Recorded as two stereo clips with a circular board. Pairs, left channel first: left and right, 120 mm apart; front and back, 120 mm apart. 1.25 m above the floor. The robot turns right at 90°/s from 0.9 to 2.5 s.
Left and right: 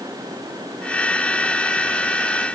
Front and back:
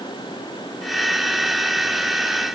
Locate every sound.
Only background noise.